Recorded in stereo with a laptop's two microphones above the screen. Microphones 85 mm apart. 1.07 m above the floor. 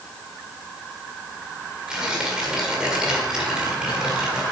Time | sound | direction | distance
1.9 | tearing paper | 10° right (ahead or behind) | 1.9 m